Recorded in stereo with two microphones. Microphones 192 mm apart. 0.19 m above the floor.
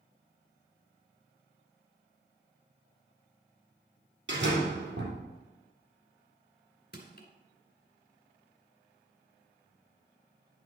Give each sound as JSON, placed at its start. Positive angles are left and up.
{"t": 4.3, "sound": "a door slam", "side_deg": -70, "distance_m": 3.0}
{"t": 6.9, "sound": "crushing", "side_deg": 55, "distance_m": 1.9}